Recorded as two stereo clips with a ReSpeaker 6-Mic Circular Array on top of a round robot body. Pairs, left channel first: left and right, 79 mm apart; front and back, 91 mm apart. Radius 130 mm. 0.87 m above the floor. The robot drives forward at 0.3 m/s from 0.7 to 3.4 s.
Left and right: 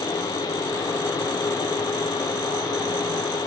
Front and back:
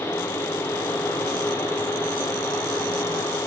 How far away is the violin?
I don't hear a violin.